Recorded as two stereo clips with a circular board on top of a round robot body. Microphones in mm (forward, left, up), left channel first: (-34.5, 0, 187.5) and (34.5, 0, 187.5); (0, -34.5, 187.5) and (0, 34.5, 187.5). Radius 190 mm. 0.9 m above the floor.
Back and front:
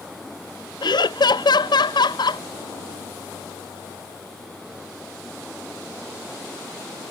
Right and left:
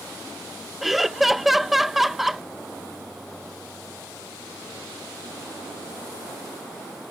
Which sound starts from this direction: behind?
Laughter, at 0.8 s.